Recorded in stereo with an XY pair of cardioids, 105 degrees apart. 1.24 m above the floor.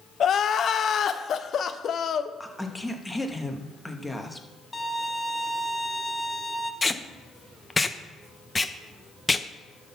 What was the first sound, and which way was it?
Crying, 55° left.